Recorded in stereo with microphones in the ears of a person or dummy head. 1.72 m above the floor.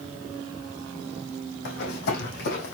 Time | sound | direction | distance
1.6 | running footsteps | 65° left (ahead or behind) | 4.5 m